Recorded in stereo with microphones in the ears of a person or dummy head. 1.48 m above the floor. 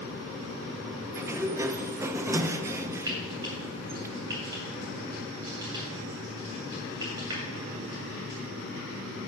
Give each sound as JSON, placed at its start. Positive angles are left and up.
{"t": 1.1, "sound": "a sliding door", "side_deg": -15, "distance_m": 0.6}
{"t": 3.1, "sound": "frying", "side_deg": -25, "distance_m": 2.5}